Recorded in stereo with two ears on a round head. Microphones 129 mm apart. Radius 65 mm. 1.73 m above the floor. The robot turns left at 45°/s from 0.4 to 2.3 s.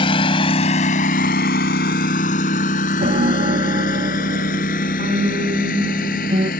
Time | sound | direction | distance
0.0 | a lawn mower | 40° left (ahead or behind) | ?
3.0 | a piano | 50° right (ahead or behind) | ?